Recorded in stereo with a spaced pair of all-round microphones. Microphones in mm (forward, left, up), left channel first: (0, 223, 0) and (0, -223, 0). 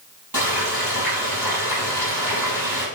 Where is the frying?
50° right (ahead or behind), 6 m.